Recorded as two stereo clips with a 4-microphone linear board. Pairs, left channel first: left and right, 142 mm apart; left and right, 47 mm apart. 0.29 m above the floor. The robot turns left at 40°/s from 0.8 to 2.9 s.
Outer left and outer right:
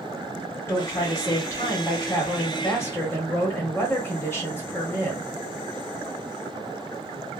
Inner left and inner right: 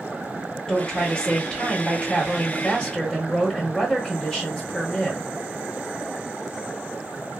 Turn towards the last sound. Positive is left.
turn(degrees=15)  # may be behind; listen again after turning